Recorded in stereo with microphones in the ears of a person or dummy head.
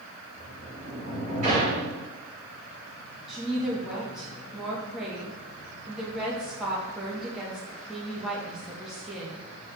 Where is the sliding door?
40° right (ahead or behind), 4 m.